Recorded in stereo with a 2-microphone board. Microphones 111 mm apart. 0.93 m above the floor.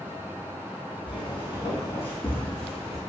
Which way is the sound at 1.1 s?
50° left (ahead or behind).